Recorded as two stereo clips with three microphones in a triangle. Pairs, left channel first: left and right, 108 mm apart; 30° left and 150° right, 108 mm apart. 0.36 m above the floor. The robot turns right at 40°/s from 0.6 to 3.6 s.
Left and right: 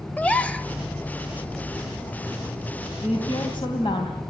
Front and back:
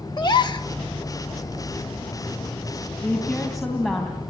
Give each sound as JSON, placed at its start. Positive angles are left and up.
{"t": 0.2, "sound": "a gasp", "azimuth_deg": 20, "distance_m": 0.8}
{"t": 3.0, "sound": "a woman speaking", "azimuth_deg": 100, "distance_m": 3.0}